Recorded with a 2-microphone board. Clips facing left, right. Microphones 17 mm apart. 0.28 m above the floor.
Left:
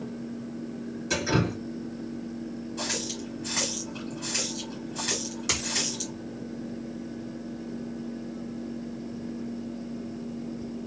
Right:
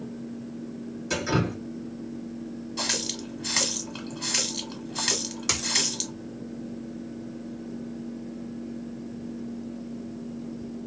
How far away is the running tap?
About 1.2 m.